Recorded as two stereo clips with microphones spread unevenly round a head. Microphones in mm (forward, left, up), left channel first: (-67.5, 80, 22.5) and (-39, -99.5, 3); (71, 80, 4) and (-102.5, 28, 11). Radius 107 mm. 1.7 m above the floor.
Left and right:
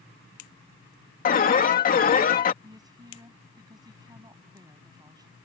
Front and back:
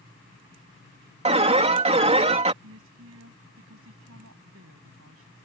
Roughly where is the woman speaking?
Behind right.